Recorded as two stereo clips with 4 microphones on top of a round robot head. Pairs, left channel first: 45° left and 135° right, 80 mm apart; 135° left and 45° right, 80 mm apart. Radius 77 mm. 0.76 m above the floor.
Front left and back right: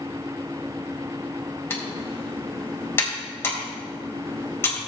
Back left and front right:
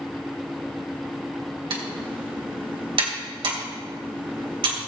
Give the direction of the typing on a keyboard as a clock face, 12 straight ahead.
1 o'clock.